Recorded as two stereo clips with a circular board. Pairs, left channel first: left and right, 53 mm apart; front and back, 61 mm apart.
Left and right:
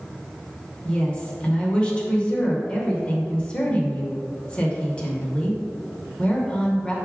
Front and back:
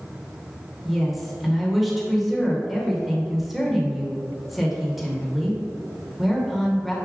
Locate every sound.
0.8 s a woman speaking: 95° left, 0.8 m